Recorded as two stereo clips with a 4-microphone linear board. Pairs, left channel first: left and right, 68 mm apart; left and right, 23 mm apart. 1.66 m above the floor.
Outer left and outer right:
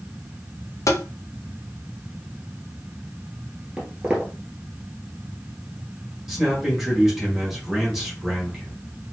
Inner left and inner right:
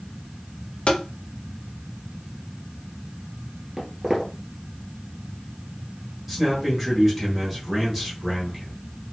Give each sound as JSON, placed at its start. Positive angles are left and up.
{"t": 0.9, "sound": "tapping", "side_deg": 55, "distance_m": 0.5}
{"t": 3.8, "sound": "footsteps", "side_deg": -20, "distance_m": 1.7}
{"t": 6.3, "sound": "a man speaking", "side_deg": -5, "distance_m": 1.5}